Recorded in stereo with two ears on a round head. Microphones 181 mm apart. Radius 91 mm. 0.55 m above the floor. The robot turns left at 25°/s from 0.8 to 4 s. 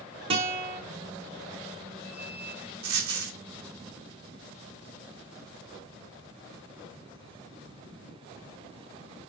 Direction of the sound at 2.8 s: 75° right (ahead or behind).